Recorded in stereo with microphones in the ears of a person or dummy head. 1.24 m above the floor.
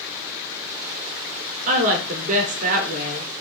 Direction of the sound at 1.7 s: 45° right (ahead or behind).